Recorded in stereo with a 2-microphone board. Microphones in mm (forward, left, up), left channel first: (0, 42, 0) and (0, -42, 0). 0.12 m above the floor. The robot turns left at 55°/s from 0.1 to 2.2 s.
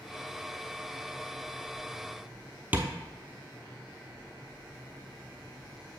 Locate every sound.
2.7 s tapping: 20° right (ahead or behind), 0.8 m